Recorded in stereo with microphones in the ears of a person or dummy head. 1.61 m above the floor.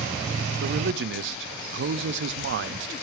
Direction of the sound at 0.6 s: 65° right (ahead or behind).